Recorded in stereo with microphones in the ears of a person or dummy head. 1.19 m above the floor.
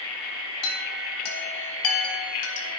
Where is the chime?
80° left, 3.5 m.